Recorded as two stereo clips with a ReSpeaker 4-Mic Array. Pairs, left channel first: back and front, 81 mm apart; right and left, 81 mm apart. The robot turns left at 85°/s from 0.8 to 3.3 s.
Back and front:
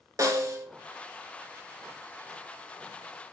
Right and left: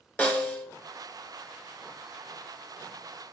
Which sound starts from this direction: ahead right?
A snare drum, at 0.2 s.